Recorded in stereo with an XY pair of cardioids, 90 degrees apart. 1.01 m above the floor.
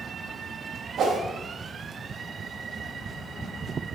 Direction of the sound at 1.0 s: 70° right.